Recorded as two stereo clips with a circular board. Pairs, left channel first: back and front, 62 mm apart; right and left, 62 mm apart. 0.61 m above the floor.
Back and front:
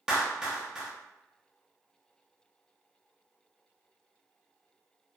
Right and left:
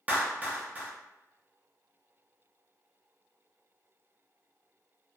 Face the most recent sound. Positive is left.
turn(degrees=65)